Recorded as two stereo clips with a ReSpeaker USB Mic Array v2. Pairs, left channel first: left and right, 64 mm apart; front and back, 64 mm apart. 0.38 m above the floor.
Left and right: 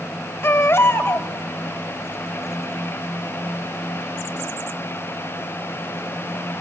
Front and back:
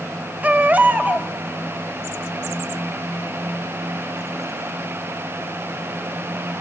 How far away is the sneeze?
No sneeze in this recording.